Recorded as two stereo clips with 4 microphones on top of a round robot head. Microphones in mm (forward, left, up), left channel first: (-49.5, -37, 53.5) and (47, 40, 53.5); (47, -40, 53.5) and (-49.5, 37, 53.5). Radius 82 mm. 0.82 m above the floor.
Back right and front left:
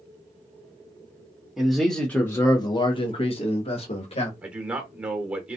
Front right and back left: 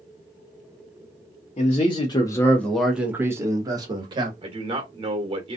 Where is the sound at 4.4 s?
115° left, 1.0 m.